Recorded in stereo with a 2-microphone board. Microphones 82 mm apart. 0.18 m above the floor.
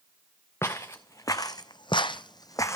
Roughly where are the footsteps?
Left.